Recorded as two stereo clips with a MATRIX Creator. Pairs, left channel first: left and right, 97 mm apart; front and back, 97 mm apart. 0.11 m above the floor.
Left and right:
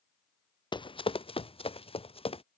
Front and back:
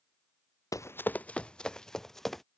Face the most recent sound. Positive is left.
turn(degrees=90)